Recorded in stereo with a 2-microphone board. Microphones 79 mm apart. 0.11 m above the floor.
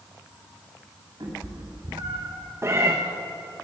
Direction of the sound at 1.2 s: 55° right (ahead or behind).